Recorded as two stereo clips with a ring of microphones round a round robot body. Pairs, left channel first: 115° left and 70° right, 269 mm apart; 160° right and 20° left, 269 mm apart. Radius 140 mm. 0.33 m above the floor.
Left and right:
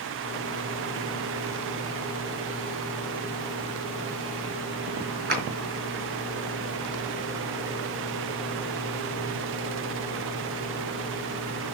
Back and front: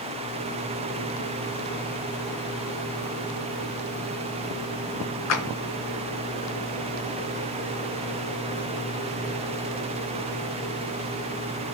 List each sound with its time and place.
5.3 s a clap: 125° right, 4 m